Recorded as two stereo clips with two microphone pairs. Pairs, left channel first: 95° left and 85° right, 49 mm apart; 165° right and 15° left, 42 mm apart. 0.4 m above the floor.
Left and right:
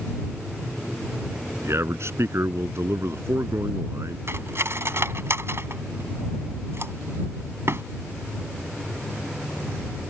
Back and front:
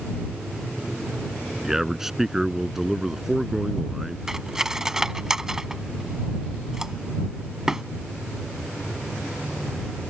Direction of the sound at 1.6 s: 65° right.